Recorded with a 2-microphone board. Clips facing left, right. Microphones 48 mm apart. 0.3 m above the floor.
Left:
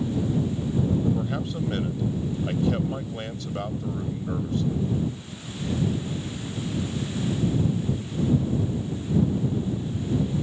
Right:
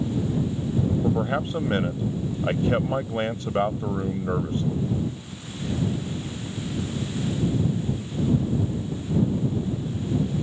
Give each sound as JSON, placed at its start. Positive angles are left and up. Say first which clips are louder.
{"t": 1.0, "sound": "a man speaking", "louder": "right 2 dB", "side_deg": -40}